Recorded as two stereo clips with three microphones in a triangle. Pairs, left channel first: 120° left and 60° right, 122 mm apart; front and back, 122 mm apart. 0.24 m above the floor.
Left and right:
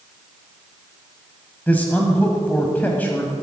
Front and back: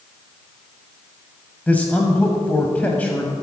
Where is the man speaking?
60° left, 1.1 m.